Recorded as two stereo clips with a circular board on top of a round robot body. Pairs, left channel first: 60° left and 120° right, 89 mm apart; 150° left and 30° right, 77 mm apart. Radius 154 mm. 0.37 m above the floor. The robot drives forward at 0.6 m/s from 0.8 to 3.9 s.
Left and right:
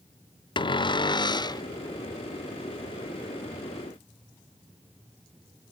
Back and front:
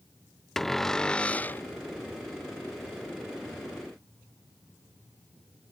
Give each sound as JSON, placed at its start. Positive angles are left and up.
{"t": 0.6, "sound": "a cupboard door", "azimuth_deg": 65}